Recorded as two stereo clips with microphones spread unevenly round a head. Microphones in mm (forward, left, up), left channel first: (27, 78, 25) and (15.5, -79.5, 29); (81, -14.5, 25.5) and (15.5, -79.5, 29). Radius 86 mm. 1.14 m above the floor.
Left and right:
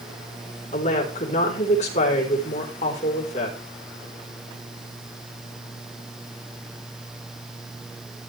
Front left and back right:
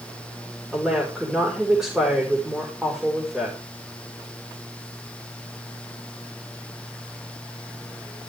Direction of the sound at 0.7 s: 140° left.